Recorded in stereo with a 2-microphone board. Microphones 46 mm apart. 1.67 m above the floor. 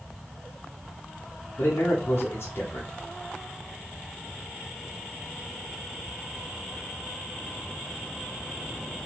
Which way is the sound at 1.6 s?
50° left (ahead or behind).